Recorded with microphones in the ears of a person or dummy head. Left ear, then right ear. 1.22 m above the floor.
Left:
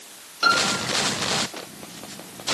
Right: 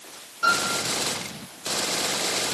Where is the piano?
70° left (ahead or behind), 6 m.